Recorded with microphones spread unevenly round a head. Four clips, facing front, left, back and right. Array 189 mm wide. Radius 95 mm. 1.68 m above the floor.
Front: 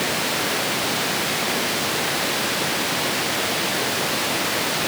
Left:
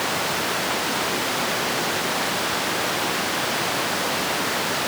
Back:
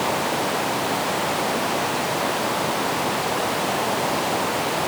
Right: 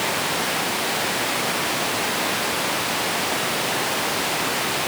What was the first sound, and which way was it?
Only background noise.